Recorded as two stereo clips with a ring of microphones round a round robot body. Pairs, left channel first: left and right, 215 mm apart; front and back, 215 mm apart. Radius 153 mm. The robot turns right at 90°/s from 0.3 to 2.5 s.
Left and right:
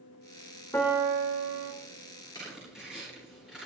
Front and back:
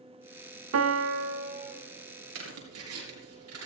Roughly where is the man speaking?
I don't hear a man speaking.